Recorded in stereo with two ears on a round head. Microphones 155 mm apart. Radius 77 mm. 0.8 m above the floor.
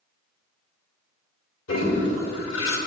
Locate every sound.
1.7 s a toilet flushing: 85° left, 1.8 m